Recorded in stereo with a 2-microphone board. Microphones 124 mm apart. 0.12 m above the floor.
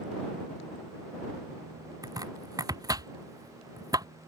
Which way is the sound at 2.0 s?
30° right (ahead or behind).